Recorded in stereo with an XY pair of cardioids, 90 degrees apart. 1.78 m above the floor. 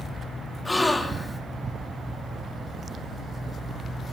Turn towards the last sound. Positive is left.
turn(degrees=20)